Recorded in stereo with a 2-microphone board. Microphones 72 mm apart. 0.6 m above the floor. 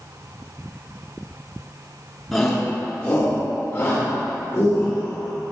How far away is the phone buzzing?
I don't hear a phone buzzing.